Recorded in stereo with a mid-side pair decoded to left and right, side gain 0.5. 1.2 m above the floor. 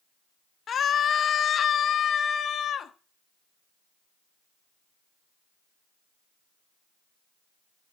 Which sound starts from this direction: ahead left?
A scream, at 0.7 s.